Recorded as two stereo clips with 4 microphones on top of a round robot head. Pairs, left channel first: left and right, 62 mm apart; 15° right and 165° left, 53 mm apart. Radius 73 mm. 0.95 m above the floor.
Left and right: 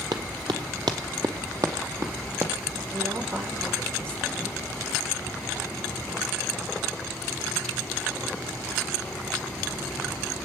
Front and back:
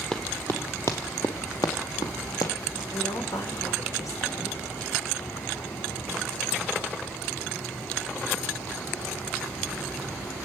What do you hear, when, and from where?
0.1 s running footsteps: 95° right, 1.3 m; by 2.8 s 30° right, 2.5 m
2.9 s a woman speaking: 35° right, 4 m